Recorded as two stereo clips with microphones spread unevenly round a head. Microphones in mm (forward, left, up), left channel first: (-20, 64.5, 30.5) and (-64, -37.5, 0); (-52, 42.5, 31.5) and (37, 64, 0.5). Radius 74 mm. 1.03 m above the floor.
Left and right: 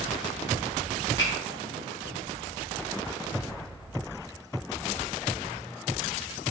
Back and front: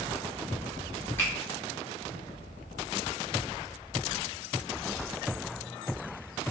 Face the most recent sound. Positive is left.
turn(degrees=125)